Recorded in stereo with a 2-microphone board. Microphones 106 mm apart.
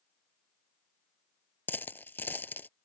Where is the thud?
I don't hear a thud.